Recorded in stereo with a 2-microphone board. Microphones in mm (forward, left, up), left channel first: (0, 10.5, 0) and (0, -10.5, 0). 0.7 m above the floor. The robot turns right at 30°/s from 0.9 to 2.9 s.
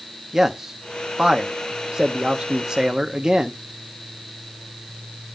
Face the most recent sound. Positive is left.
turn(degrees=-35)  # may be behind; listen again after turning